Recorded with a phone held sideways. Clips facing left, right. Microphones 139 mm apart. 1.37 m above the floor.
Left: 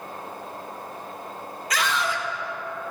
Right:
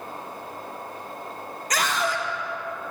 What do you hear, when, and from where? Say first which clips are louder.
1.7 s a scream: right 1 dB; 40° right (ahead or behind), 1.6 m